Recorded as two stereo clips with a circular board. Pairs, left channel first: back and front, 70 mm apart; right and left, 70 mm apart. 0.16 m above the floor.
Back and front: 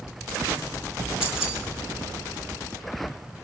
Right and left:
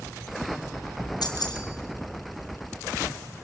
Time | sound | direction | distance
1.2 | keys jangling | 80° right | 2.5 m